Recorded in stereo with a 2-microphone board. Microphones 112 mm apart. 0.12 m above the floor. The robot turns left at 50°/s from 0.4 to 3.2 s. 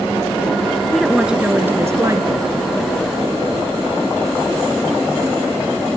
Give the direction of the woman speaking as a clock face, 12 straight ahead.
12 o'clock.